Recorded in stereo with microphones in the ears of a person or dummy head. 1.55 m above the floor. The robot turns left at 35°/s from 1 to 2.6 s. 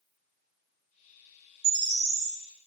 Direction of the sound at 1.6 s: 75° right (ahead or behind).